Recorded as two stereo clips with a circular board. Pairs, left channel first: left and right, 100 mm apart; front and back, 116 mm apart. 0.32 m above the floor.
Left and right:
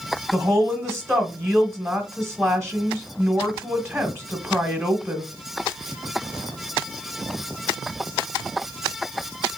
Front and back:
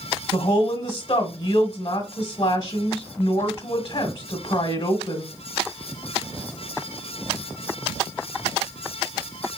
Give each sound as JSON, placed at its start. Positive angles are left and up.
{"t": 0.3, "sound": "a woman speaking", "azimuth_deg": -25, "distance_m": 1.1}